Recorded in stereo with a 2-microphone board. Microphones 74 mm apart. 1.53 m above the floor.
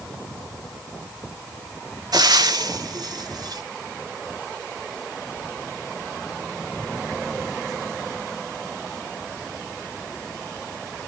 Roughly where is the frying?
Right.